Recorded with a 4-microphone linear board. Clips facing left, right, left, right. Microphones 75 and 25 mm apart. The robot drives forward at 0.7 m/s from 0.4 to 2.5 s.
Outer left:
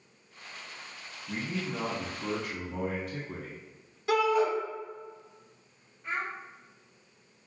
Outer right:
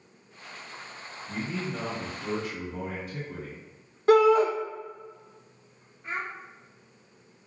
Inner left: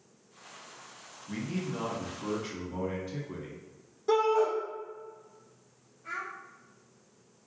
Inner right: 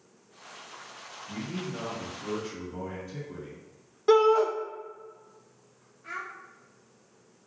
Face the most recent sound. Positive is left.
turn(degrees=-10)  # may be behind; listen again after turning